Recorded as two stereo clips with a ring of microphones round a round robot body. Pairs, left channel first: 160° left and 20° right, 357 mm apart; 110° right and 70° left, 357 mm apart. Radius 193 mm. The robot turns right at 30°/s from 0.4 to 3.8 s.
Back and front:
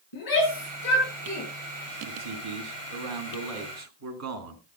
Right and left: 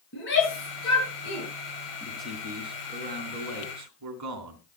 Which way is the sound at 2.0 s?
30° right.